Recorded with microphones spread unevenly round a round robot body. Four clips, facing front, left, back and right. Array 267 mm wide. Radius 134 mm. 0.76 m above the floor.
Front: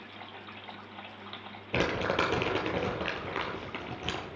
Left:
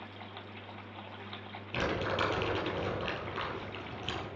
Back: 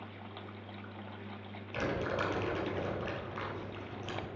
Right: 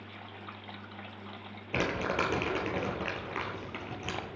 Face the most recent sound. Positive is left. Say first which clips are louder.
# right 2 dB, front 5 dB
turn(degrees=-20)